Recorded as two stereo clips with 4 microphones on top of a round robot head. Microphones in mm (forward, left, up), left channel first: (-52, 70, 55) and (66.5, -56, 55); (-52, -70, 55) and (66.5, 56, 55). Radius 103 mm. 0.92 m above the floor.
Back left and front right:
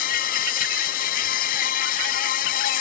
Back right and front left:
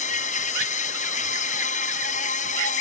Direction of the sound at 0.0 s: 175° left.